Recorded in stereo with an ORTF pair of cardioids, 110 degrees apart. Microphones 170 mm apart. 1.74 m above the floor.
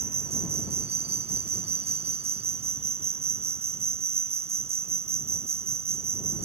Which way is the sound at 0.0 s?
35° right.